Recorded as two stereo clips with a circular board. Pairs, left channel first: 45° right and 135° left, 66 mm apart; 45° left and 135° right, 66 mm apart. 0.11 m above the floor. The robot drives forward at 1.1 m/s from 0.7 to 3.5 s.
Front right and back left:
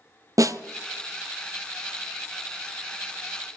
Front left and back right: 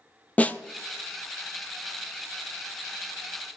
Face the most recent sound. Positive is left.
turn(degrees=170)